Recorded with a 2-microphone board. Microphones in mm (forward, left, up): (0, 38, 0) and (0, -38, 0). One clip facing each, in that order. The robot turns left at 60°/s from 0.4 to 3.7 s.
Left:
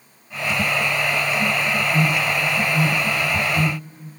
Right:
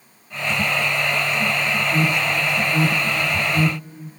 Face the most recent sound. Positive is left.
turn(degrees=-10)  # may be behind; listen again after turning